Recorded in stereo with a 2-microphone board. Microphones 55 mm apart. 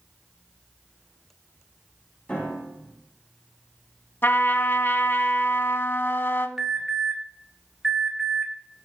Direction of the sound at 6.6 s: 5° right (ahead or behind).